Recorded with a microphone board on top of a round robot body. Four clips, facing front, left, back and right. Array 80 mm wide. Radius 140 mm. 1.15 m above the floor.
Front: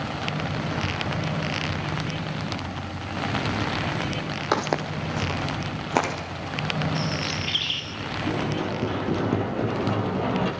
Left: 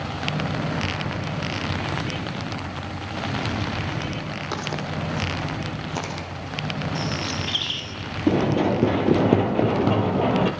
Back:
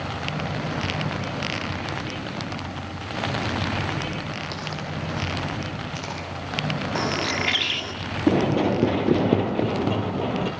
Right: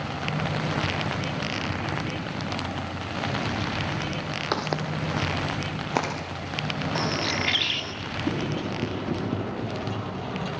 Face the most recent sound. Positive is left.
turn(degrees=90)